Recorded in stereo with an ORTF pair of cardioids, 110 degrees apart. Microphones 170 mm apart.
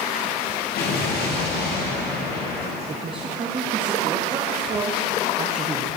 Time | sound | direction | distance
0.8 | an explosion | 70° left | 1.9 m
2.9 | a man speaking | 30° right | 1.0 m